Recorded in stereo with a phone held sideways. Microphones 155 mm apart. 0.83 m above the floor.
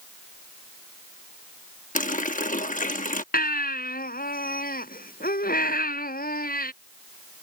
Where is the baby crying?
75° left (ahead or behind).